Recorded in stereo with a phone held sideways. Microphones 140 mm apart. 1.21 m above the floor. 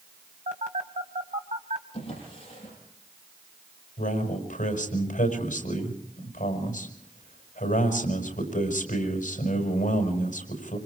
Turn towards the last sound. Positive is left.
turn(degrees=70)  # may be behind; listen again after turning